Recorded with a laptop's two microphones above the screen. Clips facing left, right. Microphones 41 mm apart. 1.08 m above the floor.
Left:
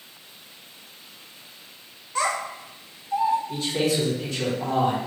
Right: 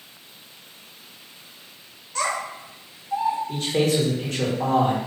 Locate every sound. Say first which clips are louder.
2.1 s a child speaking: left 1 dB; 15° left (ahead or behind), 1.0 m; by 3.4 s 20° right (ahead or behind), 2.5 m
3.5 s a man speaking: right 2 dB; 55° right (ahead or behind), 1.6 m